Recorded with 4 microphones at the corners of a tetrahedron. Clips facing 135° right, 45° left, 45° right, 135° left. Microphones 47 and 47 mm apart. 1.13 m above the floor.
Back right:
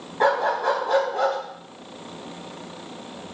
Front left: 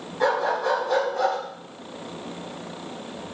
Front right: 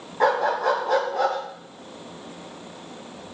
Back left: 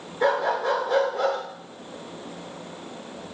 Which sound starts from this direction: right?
A dog barking, at 0.2 s.